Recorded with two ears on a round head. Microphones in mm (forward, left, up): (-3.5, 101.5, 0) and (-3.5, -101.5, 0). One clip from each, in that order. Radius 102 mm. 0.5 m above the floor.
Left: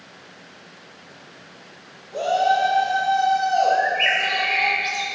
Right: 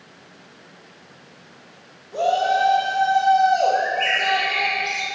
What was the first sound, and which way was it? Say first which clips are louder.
A shout: even; centre (ahead or behind).